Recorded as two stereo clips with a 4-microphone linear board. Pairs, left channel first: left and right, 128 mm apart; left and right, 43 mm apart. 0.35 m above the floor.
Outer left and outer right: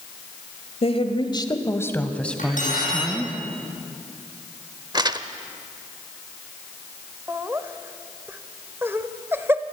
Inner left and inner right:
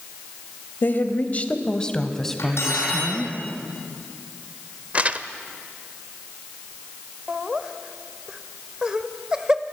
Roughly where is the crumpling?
Right.